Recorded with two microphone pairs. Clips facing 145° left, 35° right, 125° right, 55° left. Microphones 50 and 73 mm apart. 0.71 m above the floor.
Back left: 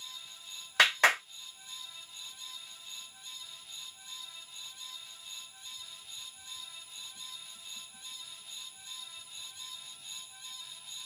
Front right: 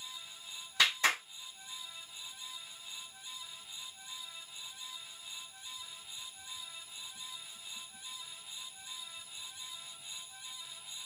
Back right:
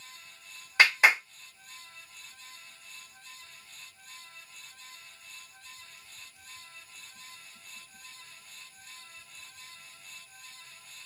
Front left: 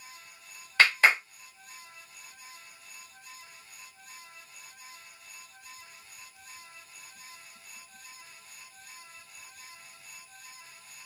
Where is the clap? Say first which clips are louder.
Back left 5 dB, even; 160° left, 1.7 m.